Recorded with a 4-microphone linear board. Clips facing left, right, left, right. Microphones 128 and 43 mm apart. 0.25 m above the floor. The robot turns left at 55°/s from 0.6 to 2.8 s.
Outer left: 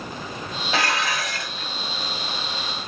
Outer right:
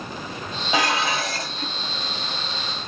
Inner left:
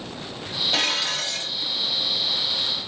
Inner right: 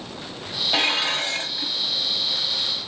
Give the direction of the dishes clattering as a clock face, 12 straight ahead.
1 o'clock.